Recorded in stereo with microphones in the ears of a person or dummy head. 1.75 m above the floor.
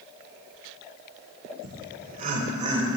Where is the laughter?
55° right (ahead or behind), 1.1 m; by 3.0 s 30° right (ahead or behind), 1.7 m.